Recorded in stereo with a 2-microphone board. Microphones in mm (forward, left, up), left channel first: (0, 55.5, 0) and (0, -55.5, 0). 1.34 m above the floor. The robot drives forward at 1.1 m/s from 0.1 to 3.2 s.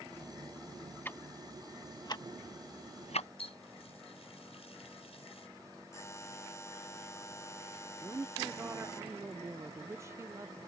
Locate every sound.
1.1 s ticking: 20° left (ahead or behind); by 3.3 s 70° left (ahead or behind)
3.4 s a running tap: 65° left (ahead or behind)
5.9 s a buzzer: 25° left (ahead or behind)
8.0 s a woman speaking: 25° right (ahead or behind)